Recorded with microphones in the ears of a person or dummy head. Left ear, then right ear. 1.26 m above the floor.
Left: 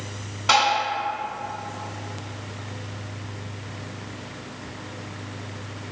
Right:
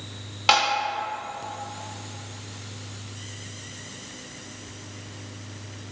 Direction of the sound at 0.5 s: 25° right (ahead or behind).